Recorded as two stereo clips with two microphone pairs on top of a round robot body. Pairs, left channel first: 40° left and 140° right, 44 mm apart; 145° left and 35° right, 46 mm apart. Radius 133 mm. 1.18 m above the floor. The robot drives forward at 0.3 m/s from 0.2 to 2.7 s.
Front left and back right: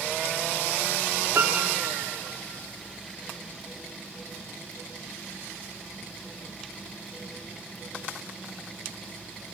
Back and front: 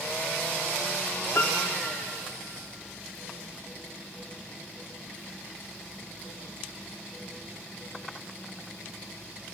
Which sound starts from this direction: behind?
A piano, at 1.4 s.